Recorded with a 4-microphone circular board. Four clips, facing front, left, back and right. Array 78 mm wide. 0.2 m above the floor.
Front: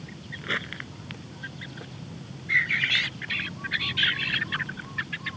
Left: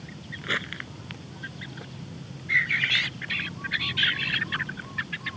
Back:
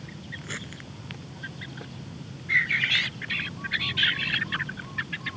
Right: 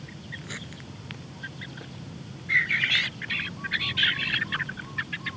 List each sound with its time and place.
0.4 s crumpling: 50° left